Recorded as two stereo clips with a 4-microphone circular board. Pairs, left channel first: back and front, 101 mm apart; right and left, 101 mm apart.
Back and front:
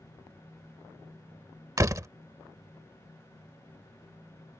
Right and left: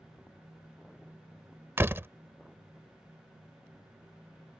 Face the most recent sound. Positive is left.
turn(degrees=35)